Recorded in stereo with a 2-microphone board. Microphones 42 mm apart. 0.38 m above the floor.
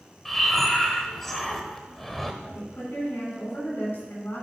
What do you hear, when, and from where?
0.2 s breathing: 5° left (ahead or behind), 0.9 m
2.4 s a woman speaking: 70° left (ahead or behind), 4 m